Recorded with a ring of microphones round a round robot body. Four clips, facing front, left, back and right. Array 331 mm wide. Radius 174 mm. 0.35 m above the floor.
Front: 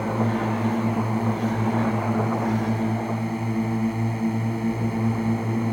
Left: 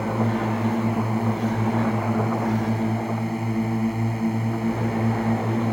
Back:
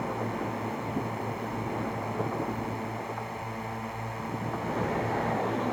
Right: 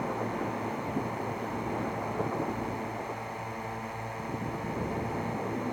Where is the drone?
45° left.